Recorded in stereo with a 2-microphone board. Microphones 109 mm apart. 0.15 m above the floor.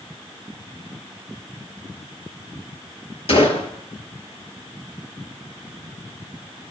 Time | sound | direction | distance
3.3 | a gunshot | 65° left (ahead or behind) | 3 m